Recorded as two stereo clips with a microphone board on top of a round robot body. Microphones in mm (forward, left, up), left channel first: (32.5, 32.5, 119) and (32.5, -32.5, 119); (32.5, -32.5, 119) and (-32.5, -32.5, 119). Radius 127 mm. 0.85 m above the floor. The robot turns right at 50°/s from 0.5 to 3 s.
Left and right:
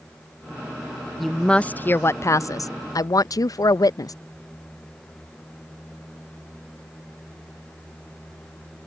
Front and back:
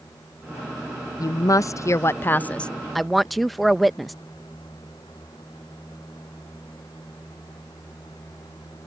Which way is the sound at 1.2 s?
Straight ahead.